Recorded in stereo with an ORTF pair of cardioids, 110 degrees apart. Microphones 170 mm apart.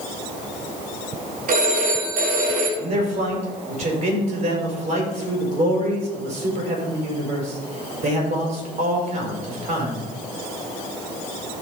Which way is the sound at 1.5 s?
55° right.